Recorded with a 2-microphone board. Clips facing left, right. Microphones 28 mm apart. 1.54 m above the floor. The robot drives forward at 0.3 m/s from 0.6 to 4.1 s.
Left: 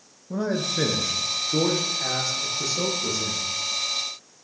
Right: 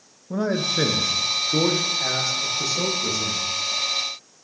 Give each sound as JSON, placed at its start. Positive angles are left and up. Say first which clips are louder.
{"t": 0.3, "sound": "a man speaking", "louder": "right 3 dB", "side_deg": -20, "distance_m": 0.6}